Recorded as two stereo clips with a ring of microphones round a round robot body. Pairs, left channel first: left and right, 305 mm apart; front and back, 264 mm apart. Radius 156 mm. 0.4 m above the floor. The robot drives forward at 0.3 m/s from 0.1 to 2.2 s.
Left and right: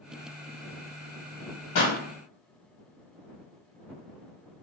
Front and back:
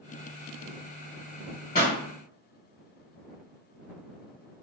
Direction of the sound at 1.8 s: 50° left.